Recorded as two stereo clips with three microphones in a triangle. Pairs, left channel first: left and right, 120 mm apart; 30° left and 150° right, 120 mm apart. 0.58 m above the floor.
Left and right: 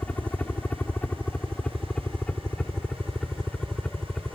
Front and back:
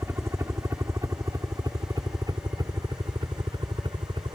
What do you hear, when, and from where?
0.0 s a helicopter: 160° left; by 4.4 s 175° left